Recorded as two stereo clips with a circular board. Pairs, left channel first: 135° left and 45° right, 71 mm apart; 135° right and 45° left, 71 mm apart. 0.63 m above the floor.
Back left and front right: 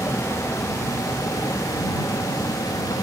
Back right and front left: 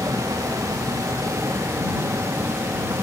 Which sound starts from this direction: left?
A vehicle, at 0.0 s.